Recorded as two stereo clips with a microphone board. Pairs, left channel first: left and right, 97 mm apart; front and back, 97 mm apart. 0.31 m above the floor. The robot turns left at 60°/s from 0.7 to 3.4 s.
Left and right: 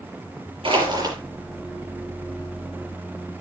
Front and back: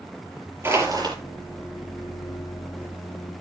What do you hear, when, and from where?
0.6 s crushing: 120° right, 5 m; by 1.2 s 145° right, 5 m